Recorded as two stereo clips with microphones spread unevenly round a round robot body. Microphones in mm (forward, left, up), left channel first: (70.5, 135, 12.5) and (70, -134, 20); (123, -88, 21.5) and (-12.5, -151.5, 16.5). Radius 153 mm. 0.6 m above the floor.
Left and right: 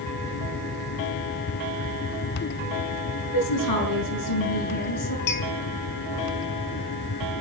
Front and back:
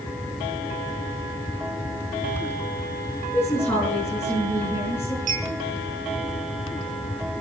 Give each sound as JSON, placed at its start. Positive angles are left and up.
{"t": 3.3, "sound": "a woman speaking", "azimuth_deg": 105, "distance_m": 7.0}
{"t": 5.3, "sound": "a clink", "azimuth_deg": 145, "distance_m": 3.5}